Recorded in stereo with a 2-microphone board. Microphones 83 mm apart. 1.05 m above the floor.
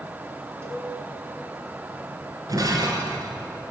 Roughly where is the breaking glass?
Right.